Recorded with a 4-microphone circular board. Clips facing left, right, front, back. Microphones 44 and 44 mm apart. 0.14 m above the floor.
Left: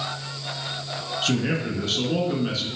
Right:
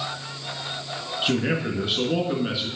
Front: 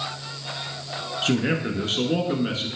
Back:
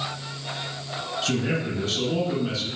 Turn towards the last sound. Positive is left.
turn(degrees=-25)